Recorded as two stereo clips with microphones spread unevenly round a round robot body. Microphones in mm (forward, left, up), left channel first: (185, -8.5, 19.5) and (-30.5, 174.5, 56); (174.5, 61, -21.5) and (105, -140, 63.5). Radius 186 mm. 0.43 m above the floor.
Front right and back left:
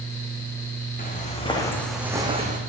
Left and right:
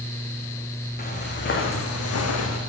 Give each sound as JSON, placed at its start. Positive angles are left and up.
{"t": 1.0, "sound": "footsteps", "azimuth_deg": 20, "distance_m": 2.5}